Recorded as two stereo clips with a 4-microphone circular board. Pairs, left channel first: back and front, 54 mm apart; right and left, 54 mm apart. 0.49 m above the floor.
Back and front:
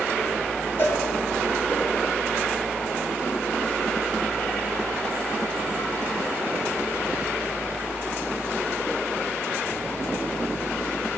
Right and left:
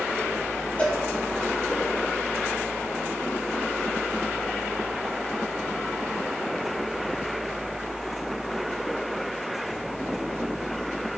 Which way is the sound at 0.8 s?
145° right.